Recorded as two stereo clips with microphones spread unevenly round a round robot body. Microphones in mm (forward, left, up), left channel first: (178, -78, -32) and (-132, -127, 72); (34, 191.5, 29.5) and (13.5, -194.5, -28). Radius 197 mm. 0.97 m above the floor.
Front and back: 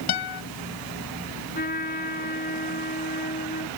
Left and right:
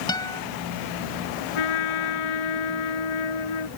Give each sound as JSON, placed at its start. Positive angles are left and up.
{"t": 0.1, "sound": "a guitar", "azimuth_deg": 10}
{"t": 1.6, "sound": "a trumpet", "azimuth_deg": 80}